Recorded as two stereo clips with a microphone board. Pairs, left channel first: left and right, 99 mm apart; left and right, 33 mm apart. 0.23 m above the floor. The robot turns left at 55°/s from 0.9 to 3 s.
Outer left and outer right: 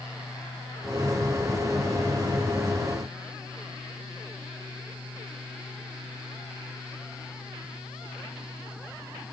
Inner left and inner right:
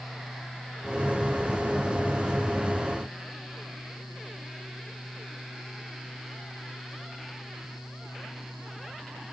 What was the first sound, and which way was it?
Only background noise.